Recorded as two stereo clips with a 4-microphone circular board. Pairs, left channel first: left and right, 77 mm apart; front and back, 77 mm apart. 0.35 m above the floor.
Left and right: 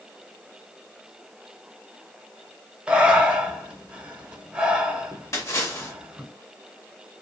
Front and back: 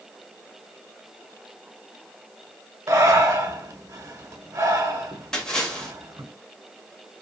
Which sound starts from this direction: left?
A splash, at 5.3 s.